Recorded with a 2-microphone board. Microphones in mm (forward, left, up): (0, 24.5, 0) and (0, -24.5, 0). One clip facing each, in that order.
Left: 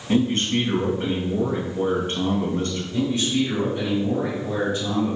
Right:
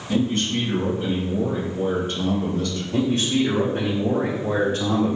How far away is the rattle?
I don't hear a rattle.